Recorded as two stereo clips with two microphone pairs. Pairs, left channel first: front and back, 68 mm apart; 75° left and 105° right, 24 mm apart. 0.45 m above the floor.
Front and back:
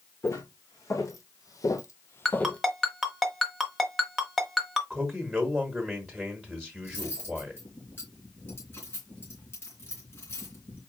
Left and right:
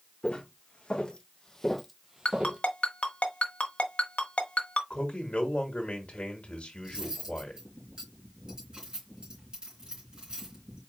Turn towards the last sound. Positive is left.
turn(degrees=-55)